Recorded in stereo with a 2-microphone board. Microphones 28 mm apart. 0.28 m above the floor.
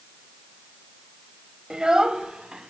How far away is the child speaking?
About 0.7 m.